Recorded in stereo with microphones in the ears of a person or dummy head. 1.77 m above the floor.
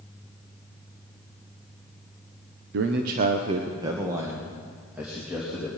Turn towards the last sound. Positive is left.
turn(degrees=-5)  # may be behind; listen again after turning